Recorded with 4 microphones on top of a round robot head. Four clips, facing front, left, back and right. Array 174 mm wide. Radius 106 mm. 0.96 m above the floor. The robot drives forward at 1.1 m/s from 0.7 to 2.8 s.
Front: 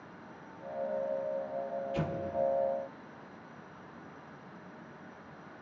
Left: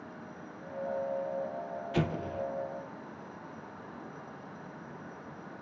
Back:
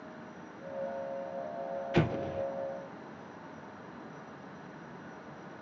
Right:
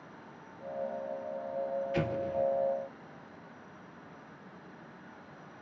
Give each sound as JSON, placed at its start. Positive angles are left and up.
{"t": 1.9, "sound": "an explosion", "azimuth_deg": 160, "distance_m": 0.6}